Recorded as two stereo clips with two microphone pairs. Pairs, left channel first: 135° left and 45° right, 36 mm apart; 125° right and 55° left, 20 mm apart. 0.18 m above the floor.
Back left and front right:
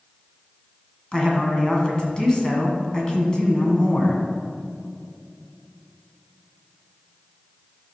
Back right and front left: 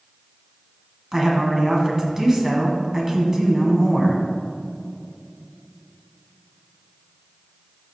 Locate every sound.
1.1 s a woman speaking: 95° left, 1.7 m